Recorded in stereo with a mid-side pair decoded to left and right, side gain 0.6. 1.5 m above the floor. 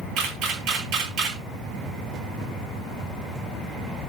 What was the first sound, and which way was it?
A camera shutter, 70° right.